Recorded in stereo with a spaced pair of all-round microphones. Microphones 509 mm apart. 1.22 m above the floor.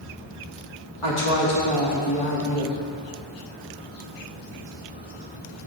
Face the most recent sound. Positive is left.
turn(degrees=70)  # may be behind; listen again after turning